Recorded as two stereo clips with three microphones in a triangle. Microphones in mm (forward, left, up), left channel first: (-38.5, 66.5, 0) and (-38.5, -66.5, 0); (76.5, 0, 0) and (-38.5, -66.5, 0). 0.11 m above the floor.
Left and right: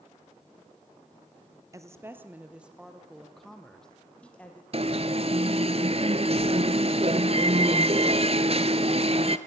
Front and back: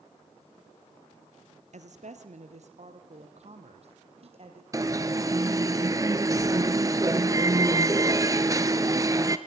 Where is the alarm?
95° right, 1.1 m.